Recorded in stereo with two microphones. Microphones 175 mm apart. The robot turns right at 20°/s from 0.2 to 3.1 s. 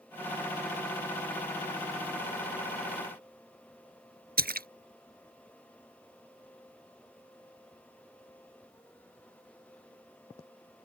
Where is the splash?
65° right (ahead or behind).